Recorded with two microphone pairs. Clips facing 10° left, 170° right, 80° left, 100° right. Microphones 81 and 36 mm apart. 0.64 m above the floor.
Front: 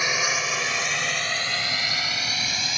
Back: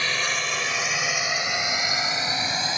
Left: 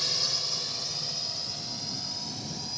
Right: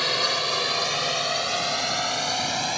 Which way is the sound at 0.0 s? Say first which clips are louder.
Front 1 dB, right 9 dB; 65° right.